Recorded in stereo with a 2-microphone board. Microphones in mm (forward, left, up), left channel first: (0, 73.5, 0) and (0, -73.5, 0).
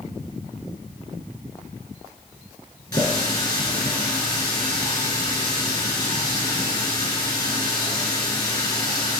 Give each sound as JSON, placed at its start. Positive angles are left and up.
{"t": 2.9, "sound": "a running tap", "side_deg": 25, "distance_m": 2.5}